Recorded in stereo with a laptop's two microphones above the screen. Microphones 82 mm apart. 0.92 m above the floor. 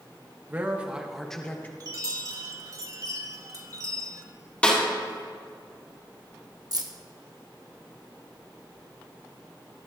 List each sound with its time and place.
0.5 s a man speaking: 25° right (ahead or behind), 1.0 m; by 1.7 s 25° left (ahead or behind), 0.7 m
1.8 s a chime: 45° right (ahead or behind), 1.1 m
4.6 s a snare drum: 15° left (ahead or behind), 2.5 m
6.7 s keys jangling: 50° right (ahead or behind), 1.1 m